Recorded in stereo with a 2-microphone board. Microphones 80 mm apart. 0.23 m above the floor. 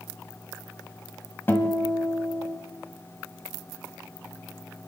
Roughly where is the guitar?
Left.